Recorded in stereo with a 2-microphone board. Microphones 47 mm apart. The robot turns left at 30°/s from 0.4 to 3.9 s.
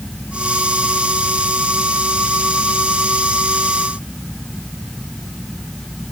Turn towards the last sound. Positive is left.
No sound to turn to.